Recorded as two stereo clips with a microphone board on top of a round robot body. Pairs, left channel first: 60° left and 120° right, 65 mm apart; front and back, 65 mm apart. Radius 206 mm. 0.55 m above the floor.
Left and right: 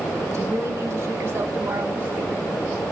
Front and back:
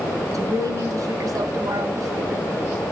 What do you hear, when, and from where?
0.3 s a woman speaking: 160° right, 3.5 m; by 2.5 s 175° left, 2.5 m